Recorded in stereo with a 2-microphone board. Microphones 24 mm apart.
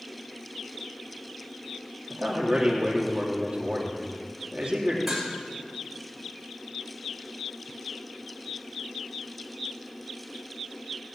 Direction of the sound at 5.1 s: 5° right (ahead or behind).